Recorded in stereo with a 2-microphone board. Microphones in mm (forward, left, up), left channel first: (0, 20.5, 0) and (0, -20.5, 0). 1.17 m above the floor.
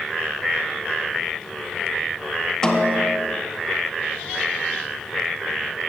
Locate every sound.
2.6 s a snare drum: 15° left (ahead or behind), 0.7 m